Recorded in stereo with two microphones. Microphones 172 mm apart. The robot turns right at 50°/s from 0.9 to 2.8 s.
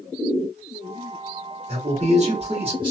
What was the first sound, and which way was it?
A man speaking, 110° right.